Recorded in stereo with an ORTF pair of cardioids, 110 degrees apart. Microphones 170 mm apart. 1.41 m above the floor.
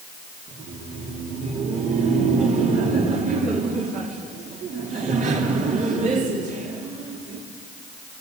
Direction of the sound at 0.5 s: 50° right.